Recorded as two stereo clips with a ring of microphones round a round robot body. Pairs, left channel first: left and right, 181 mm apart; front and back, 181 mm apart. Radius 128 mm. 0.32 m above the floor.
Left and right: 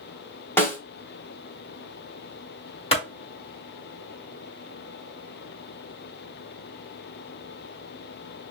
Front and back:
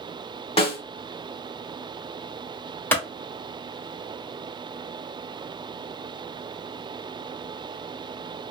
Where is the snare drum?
20° left, 1.0 m.